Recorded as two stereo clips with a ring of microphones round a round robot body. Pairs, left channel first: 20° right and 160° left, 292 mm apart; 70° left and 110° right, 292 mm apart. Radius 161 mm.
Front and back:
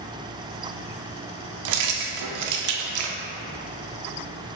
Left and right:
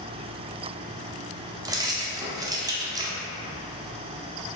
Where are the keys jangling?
170° left, 0.5 m.